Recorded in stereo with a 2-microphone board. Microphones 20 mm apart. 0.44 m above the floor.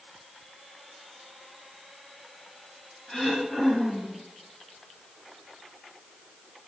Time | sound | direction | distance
3.1 | throat clearing | 35° left (ahead or behind) | 6 m